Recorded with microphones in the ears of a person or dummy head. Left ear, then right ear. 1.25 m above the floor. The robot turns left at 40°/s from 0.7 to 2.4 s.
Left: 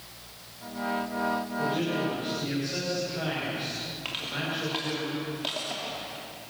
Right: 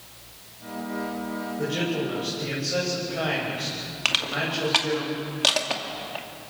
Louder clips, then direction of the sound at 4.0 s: Right 10 dB; 65° right (ahead or behind).